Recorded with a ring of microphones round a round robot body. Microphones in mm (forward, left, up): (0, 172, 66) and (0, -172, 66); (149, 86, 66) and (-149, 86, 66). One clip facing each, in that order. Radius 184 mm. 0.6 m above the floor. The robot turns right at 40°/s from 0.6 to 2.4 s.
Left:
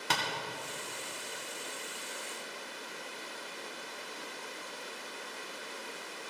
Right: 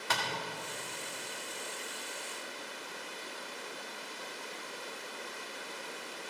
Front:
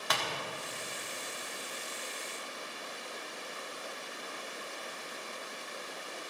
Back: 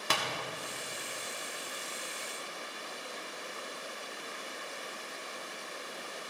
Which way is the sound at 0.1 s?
130° left.